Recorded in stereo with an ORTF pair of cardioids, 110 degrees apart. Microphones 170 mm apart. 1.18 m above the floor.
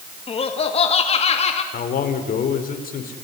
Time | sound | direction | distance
0.3 | laughter | 35° left | 2.0 m
1.7 | a man speaking | 55° left | 4 m